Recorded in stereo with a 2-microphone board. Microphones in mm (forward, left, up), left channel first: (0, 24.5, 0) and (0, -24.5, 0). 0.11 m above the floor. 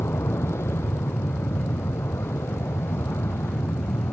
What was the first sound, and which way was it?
An aircraft, 55° left (ahead or behind).